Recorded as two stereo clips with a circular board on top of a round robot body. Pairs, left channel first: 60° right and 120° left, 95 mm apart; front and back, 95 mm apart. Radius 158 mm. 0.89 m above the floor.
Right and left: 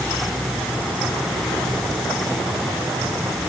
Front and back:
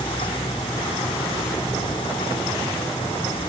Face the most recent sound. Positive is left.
No sound to turn to.